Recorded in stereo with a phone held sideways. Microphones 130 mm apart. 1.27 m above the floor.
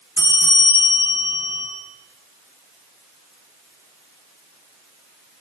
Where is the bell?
20° right (ahead or behind), 4.5 m.